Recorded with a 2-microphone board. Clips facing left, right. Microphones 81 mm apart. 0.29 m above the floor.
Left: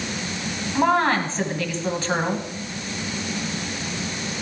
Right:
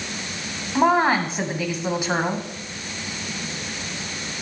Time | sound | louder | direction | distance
0.8 | a woman speaking | right 2 dB | 10° right (ahead or behind) | 2.5 m